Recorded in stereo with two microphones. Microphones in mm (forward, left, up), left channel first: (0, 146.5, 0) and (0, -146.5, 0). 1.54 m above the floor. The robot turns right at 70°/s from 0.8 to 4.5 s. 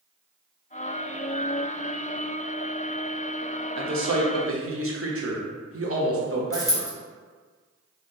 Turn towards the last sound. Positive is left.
turn(degrees=10)  # may be behind; listen again after turning